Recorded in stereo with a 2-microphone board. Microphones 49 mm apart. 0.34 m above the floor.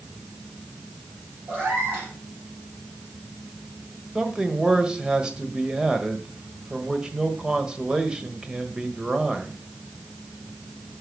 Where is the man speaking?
15° right (ahead or behind), 1.3 m.